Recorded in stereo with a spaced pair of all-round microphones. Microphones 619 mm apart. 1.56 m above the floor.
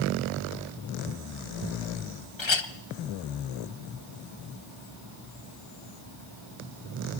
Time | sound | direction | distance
2.4 | a clink | 45° left (ahead or behind) | 0.9 m